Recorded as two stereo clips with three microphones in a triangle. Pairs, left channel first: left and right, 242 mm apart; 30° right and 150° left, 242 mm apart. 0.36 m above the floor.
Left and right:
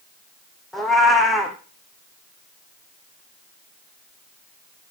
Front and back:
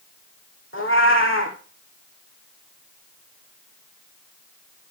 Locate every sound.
0.7 s a cat meowing: straight ahead, 2.5 m